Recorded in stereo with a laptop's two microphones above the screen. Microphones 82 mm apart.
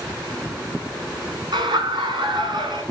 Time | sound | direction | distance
1.5 | laughter | 60° right (ahead or behind) | 5 m